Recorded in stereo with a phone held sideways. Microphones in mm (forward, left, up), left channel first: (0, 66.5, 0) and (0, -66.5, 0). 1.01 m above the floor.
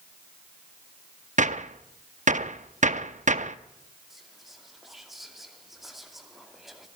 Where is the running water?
I don't hear running water.